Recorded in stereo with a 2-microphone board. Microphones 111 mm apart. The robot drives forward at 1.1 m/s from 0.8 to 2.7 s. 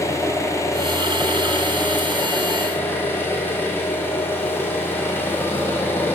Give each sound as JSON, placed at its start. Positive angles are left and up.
{"t": 0.0, "sound": "an engine running", "side_deg": 25, "distance_m": 5.0}